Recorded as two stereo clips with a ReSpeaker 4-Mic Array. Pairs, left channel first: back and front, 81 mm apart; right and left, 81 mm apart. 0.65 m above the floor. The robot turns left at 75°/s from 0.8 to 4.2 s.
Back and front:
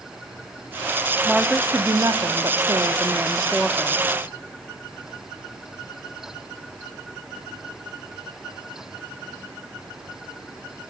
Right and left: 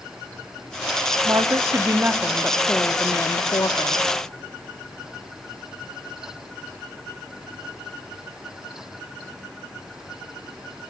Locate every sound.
1.2 s a woman speaking: 95° left, 0.9 m; by 4.0 s 115° right, 0.9 m